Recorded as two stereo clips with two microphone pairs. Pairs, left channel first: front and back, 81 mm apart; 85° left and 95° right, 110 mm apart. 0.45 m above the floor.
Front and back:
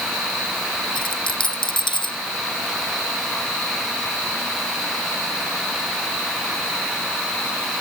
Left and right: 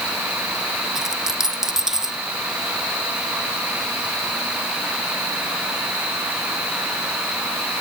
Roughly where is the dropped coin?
Ahead.